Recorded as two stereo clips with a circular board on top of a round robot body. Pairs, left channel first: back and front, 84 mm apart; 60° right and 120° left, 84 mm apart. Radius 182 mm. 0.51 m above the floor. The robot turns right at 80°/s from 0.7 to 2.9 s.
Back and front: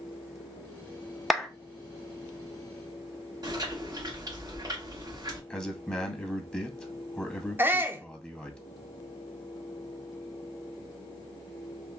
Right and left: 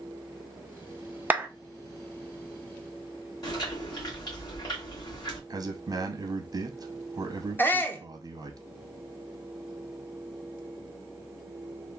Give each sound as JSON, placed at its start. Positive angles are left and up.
{"t": 1.3, "sound": "a clap", "azimuth_deg": 90, "distance_m": 0.7}
{"t": 3.4, "sound": "chewing", "azimuth_deg": -35, "distance_m": 1.9}
{"t": 5.5, "sound": "a man speaking", "azimuth_deg": 105, "distance_m": 0.8}
{"t": 7.6, "sound": "a shout", "azimuth_deg": -25, "distance_m": 0.8}